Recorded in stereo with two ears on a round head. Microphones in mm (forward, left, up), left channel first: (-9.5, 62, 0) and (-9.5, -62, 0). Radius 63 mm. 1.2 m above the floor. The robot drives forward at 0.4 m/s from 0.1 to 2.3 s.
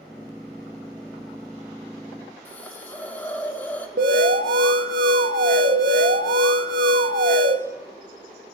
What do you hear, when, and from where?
2.5 s a hiss: 15° left (ahead or behind), 1.5 m
4.0 s an alarm: 80° right, 1.6 m